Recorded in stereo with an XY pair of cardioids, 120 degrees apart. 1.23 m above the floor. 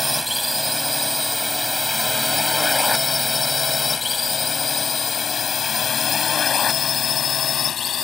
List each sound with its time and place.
0.0 s a drone: straight ahead; by 8.1 s 50° left